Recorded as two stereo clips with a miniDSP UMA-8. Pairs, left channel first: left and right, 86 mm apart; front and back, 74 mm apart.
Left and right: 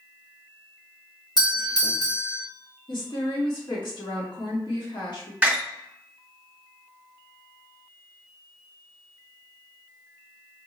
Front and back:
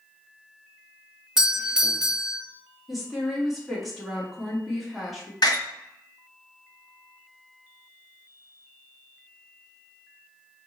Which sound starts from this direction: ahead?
A door slam, at 5.4 s.